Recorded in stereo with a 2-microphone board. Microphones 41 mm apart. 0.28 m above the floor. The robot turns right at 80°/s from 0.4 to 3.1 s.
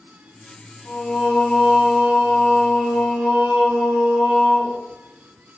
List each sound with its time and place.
0.8 s singing: 115° left, 1.1 m; by 4.8 s 65° right, 1.1 m